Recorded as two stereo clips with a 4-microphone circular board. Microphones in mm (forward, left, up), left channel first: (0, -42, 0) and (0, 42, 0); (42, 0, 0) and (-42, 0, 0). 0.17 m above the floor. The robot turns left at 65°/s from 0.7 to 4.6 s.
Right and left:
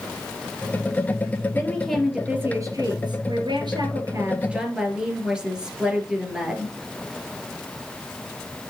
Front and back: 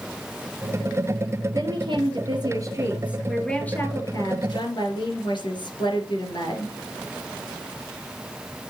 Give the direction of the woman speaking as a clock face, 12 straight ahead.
5 o'clock.